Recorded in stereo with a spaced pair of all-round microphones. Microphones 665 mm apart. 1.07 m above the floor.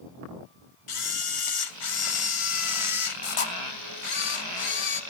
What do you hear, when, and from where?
0.9 s a camera shutter: 50° left (ahead or behind), 0.9 m